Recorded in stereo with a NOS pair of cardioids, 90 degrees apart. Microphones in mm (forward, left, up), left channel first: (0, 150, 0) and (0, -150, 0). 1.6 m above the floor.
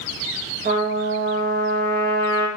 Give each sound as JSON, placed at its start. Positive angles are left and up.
{"t": 0.7, "sound": "a trumpet", "azimuth_deg": -35, "distance_m": 1.6}